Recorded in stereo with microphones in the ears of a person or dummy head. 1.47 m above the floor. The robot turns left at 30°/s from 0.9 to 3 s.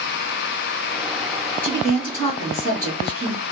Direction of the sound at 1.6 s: 165° left.